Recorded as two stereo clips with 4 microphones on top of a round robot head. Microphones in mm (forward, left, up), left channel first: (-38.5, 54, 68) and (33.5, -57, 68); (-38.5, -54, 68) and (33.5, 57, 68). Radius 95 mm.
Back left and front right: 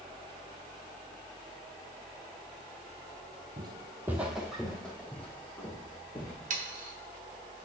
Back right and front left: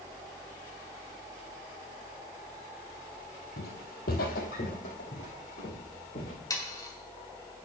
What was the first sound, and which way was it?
Footsteps, 110° right.